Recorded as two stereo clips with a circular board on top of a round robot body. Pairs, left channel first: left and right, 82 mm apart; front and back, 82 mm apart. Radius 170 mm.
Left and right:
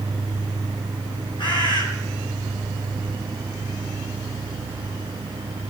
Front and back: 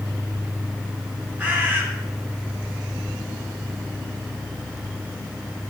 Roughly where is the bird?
Left.